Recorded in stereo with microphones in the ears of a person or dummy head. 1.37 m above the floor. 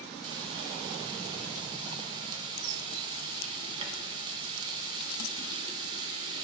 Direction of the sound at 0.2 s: 20° right (ahead or behind).